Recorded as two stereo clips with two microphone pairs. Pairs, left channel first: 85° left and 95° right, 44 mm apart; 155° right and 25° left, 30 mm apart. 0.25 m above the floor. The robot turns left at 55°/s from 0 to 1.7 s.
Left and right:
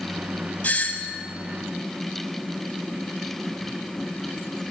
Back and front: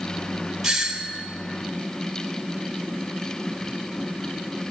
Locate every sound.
0.6 s a doorbell: 115° left, 2.0 m; by 1.2 s 80° left, 2.0 m